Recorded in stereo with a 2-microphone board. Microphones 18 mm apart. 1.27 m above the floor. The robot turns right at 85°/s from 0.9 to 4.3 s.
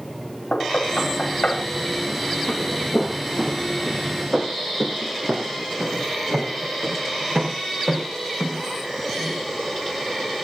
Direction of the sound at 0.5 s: 70° left (ahead or behind).